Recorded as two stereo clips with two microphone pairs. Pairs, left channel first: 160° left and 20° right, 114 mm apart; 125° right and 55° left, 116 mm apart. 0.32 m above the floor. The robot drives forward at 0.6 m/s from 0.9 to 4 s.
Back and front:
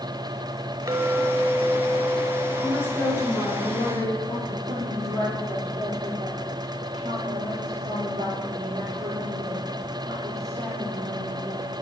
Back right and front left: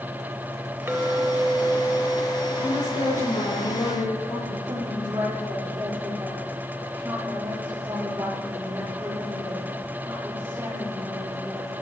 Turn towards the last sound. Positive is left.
turn(degrees=-10)